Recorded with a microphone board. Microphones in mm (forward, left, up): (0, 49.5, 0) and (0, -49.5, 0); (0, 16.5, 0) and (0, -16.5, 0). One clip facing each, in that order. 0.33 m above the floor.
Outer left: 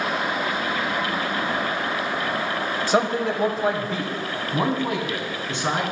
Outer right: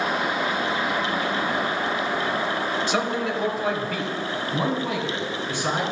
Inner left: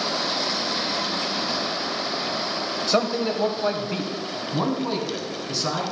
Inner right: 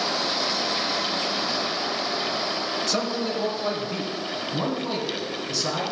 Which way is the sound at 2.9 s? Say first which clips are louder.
Outer left 3 dB, inner left 7 dB; 40° left (ahead or behind).